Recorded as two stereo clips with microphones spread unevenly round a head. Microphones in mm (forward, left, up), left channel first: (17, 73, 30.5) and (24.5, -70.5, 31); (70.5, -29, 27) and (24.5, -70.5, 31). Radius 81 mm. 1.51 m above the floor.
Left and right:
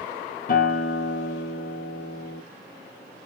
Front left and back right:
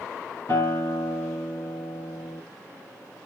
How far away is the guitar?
About 1.8 m.